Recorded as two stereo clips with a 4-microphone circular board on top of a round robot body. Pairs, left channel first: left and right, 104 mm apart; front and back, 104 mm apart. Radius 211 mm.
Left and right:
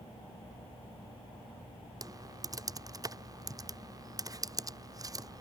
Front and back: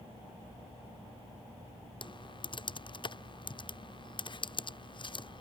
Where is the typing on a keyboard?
35° right.